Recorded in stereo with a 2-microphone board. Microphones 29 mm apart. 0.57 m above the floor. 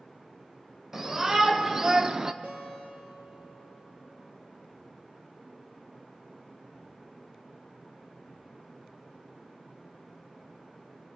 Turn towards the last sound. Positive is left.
turn(degrees=-60)  # may be behind; listen again after turning